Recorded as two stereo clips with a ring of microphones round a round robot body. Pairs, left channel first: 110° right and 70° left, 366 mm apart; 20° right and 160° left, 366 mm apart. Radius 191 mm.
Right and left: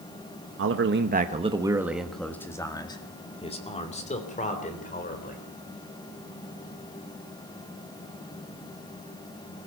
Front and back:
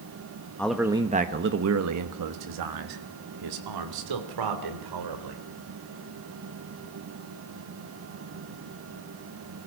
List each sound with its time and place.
0.6 s a man speaking: 60° left, 1.2 m; by 5.4 s straight behind, 4 m